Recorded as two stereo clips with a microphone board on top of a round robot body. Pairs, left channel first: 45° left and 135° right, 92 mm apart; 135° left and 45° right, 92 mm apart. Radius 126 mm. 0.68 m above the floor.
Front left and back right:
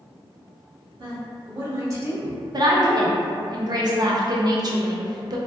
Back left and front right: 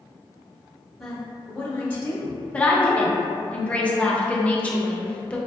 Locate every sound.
1.0 s a woman speaking: 135° right, 1.4 m; by 2.4 s 160° left, 1.1 m
2.5 s a woman speaking: 155° right, 0.7 m